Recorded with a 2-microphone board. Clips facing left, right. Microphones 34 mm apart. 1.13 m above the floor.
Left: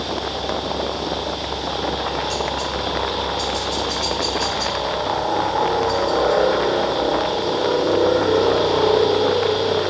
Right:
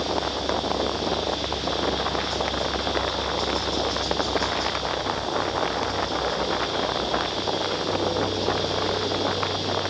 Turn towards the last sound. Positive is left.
turn(degrees=70)  # may be behind; listen again after turning